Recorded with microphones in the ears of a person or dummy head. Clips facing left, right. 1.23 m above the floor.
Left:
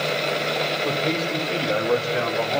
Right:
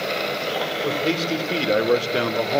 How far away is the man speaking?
About 1.8 m.